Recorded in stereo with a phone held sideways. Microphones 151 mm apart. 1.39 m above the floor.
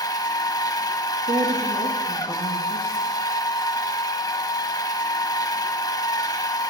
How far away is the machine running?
About 0.7 m.